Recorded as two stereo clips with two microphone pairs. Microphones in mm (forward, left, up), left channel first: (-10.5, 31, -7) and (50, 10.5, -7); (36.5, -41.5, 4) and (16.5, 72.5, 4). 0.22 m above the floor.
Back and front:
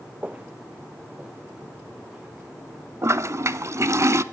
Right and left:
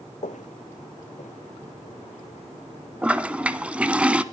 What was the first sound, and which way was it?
Footsteps, 85° right.